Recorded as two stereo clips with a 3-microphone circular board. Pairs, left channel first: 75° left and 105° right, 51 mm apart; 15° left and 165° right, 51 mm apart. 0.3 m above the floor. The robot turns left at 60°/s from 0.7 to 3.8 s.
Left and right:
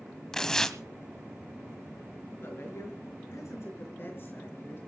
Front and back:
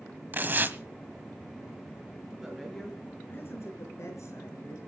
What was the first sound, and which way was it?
Tearing paper, 150° left.